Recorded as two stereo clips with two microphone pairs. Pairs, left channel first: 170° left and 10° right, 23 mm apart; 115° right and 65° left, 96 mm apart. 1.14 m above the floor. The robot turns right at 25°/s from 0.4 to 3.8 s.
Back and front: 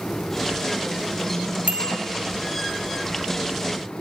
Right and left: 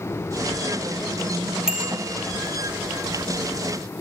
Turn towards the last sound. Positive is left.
turn(degrees=35)